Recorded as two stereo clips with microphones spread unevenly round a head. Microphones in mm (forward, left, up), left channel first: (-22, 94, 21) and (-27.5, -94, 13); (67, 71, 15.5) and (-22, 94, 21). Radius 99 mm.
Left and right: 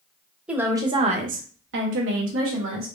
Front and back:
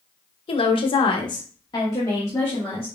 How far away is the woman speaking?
About 0.7 m.